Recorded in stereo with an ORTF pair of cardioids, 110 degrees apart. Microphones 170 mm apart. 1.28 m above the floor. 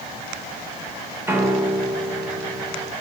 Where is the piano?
15° right, 0.8 m.